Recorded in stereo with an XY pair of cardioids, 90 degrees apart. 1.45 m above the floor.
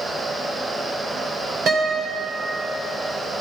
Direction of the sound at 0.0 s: 40° right.